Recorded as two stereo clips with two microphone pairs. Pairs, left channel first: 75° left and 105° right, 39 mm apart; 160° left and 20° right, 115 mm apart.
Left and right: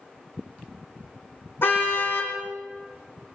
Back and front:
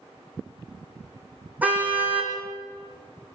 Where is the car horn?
60° left, 5.5 m.